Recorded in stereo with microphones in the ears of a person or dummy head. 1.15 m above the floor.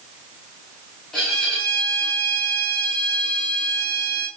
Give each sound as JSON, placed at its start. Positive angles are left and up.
{"t": 1.1, "sound": "a violin", "side_deg": 5, "distance_m": 3.5}